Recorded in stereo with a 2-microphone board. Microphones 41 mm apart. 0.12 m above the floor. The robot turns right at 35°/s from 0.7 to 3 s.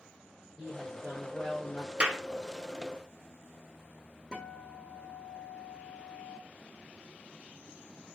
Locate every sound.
0.6 s a woman speaking: 5° right, 5.5 m; by 1.9 s 35° left, 5.5 m
2.0 s a clap: 25° right (ahead or behind), 1.1 m
4.3 s a guitar: 25° left (ahead or behind), 2.5 m